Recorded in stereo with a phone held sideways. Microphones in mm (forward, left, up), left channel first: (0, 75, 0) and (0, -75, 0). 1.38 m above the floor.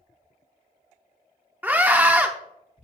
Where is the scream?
15° right (ahead or behind), 0.5 m.